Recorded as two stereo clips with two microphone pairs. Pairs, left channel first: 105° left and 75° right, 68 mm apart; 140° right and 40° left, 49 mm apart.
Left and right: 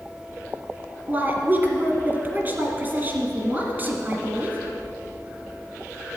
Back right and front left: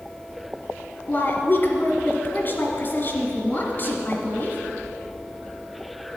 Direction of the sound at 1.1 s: 115° right.